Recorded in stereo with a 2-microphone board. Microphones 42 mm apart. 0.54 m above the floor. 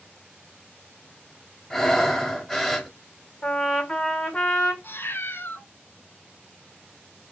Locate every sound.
1.7 s breathing: 5° left (ahead or behind), 1.2 m
3.4 s a trumpet: 20° left (ahead or behind), 1.8 m
4.8 s a cat meowing: 55° left (ahead or behind), 1.0 m